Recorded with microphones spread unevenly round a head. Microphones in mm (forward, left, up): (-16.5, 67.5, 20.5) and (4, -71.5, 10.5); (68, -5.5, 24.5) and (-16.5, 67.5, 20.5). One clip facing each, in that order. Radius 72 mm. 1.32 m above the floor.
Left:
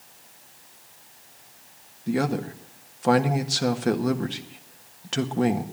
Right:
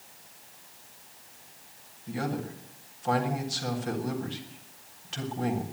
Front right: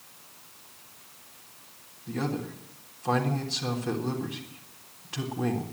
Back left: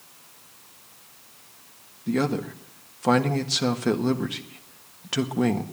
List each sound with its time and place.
2.1 s a man speaking: 125° left, 1.5 m